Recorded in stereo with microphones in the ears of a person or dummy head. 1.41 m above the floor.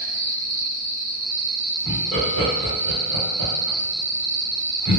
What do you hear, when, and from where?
0.0 s an insect: 60° right (ahead or behind), 1.1 m
1.9 s laughter: 30° right (ahead or behind), 1.4 m